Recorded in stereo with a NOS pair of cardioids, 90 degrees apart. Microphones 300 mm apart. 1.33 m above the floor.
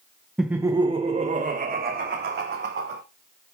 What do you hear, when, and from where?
0.4 s laughter: straight ahead, 0.6 m; by 3.0 s 40° right, 1.8 m